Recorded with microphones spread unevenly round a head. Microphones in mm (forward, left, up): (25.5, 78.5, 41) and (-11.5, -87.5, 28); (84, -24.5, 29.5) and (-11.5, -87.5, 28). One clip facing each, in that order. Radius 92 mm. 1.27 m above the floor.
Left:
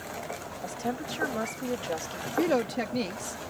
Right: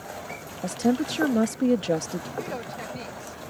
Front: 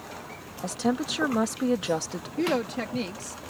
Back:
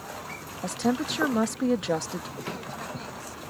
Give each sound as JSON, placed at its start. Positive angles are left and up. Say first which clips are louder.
{"t": 0.6, "sound": "a woman speaking", "louder": "right 10 dB, even", "azimuth_deg": -55}
{"t": 2.4, "sound": "a woman speaking", "louder": "left 7 dB, front 10 dB", "azimuth_deg": 45}